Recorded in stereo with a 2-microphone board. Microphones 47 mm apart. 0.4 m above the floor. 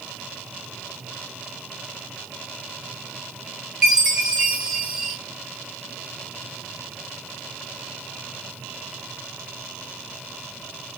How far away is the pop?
No pop in this recording.